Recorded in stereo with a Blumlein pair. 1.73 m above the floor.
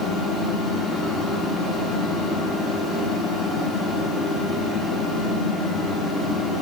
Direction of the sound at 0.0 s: 20° left.